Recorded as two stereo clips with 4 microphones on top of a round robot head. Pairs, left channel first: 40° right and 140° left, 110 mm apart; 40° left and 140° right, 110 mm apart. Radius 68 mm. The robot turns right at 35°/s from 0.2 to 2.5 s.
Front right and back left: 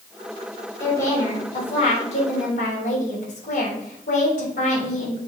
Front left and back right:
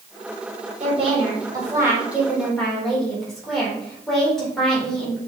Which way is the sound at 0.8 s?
110° right.